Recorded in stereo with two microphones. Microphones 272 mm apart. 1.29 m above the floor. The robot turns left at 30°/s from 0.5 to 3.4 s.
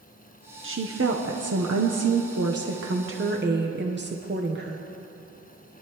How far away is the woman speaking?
About 0.9 m.